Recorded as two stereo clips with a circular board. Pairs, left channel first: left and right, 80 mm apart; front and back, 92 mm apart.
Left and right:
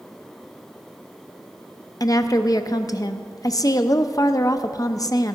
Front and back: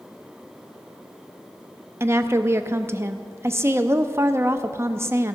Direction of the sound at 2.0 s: 120° left.